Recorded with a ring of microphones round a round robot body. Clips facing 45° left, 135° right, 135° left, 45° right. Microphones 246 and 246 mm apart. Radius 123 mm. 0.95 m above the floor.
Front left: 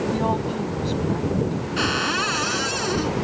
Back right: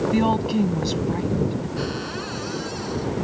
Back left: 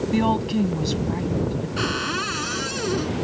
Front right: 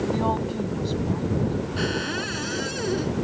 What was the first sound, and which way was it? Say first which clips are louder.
A woman speaking: back right 4 dB, back left 4 dB; straight behind.